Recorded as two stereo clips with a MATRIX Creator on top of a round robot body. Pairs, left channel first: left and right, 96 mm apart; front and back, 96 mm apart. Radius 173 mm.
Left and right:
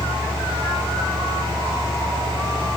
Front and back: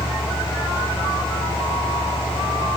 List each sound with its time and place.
Only background noise.